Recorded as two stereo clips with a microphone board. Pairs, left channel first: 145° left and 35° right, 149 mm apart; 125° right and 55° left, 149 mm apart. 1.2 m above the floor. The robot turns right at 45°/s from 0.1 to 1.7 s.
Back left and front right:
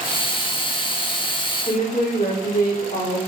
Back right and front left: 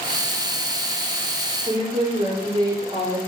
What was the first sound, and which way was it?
A woman speaking, 120° left.